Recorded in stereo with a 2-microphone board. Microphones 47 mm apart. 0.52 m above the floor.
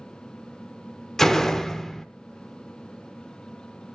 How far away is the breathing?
No breathing in this recording.